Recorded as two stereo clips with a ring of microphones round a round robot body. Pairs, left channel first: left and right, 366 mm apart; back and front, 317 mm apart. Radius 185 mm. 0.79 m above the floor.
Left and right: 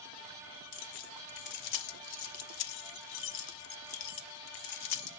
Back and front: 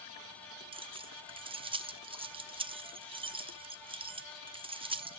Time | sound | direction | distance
0.7 | keys jangling | 75° left | 0.9 m